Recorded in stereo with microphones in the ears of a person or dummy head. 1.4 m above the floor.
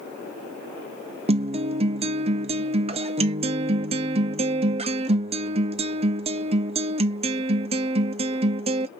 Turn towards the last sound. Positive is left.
turn(degrees=-25)  # may be behind; listen again after turning